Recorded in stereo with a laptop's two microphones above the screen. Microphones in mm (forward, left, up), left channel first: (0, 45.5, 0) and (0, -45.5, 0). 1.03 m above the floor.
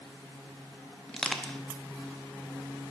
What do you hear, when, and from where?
1.1 s crushing: 10° left (ahead or behind), 0.6 m